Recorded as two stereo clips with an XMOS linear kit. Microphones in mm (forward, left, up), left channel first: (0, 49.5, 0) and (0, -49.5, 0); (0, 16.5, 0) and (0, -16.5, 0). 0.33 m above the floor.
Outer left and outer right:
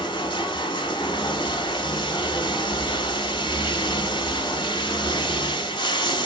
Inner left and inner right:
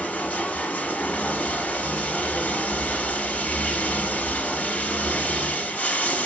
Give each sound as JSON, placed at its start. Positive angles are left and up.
{"t": 0.0, "sound": "running water", "side_deg": 60, "distance_m": 1.0}